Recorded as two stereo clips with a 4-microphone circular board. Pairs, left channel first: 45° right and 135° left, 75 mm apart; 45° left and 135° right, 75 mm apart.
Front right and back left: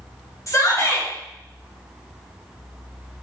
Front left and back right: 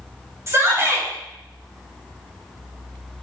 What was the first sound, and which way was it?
A shout, 85° right.